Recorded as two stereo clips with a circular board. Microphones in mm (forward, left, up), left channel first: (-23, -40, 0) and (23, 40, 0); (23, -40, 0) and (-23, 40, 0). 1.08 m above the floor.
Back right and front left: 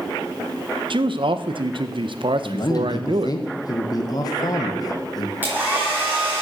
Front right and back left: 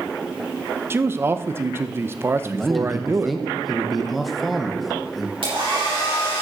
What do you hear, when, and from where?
0.9 s a man speaking: 60° left, 0.6 m
2.4 s a man speaking: 150° right, 1.1 m
5.4 s a hair dryer: 130° left, 5 m